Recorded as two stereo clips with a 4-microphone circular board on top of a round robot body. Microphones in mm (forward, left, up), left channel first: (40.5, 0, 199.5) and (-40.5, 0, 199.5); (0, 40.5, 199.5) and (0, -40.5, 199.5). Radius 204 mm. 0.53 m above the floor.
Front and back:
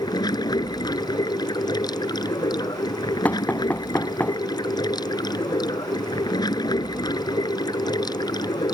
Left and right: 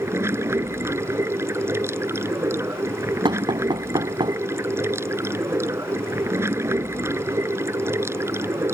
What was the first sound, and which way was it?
Running water, 35° right.